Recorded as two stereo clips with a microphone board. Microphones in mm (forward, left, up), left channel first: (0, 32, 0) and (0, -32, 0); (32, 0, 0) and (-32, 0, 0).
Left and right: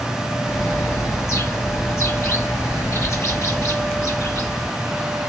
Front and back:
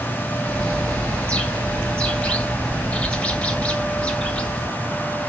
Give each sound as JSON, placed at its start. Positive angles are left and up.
{"t": 0.4, "sound": "a bird", "azimuth_deg": 70, "distance_m": 1.4}